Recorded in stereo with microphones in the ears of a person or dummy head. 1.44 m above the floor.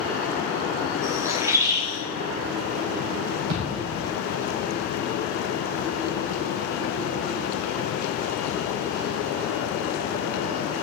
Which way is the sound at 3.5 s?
55° right (ahead or behind).